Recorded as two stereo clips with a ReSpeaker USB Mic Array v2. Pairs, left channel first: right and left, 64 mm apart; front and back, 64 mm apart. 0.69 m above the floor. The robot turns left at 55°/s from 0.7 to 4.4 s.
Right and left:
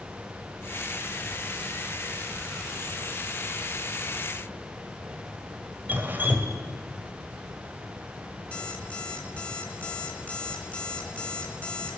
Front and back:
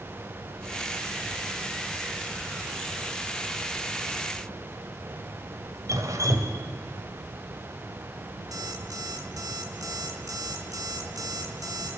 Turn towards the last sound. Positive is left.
turn(degrees=-160)